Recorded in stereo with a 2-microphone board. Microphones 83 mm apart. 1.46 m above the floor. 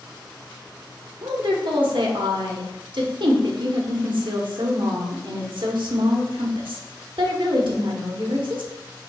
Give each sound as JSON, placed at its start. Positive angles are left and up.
{"t": 1.2, "sound": "a woman speaking", "side_deg": -80, "distance_m": 1.1}